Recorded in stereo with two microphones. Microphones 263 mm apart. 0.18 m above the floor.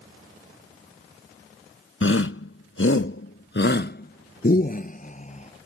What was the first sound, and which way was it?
A shout, 55° left (ahead or behind).